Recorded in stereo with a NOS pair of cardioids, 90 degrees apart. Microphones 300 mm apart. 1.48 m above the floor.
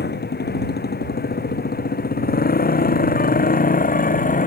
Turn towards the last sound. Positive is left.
turn(degrees=25)